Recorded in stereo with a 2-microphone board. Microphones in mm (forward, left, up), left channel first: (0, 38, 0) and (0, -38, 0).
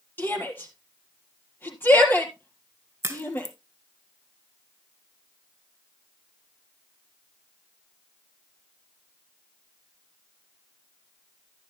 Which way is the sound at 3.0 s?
40° right (ahead or behind).